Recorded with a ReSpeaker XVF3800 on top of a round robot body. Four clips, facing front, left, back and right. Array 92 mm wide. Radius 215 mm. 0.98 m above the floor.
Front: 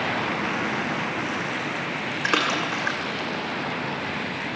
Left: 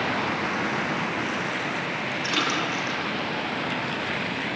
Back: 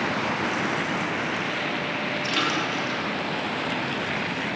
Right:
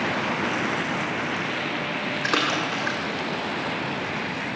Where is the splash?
35° right, 2.5 m.